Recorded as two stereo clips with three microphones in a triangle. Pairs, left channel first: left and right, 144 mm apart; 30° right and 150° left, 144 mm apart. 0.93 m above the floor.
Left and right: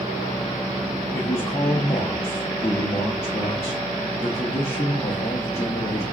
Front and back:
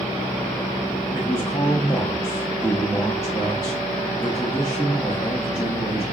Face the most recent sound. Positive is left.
turn(degrees=40)